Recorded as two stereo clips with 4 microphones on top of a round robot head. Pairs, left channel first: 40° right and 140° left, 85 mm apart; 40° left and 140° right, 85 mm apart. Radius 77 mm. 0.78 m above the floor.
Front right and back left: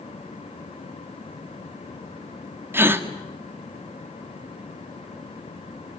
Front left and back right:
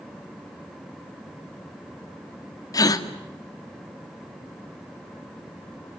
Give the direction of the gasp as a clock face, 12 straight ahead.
9 o'clock.